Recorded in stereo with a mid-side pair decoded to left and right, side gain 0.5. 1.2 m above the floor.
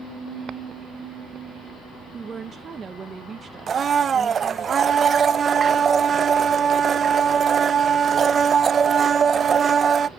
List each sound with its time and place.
2.1 s a woman speaking: 35° right, 0.9 m
3.7 s a blender: 40° right, 0.5 m